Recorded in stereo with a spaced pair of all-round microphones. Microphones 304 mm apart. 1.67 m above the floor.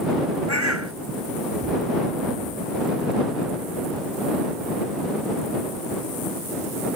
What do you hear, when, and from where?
0.5 s a bird: 60° right (ahead or behind)